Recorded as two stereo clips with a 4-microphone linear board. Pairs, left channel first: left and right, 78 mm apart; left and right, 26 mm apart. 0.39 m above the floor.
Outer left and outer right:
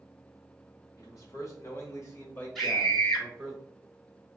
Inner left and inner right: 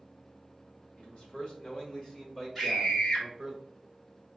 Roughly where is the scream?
Centre.